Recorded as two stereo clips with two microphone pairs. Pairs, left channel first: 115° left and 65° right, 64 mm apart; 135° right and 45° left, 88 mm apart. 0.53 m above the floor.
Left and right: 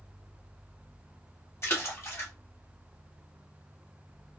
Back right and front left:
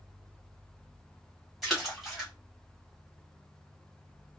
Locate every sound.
1.6 s a splash: 135° left, 1.2 m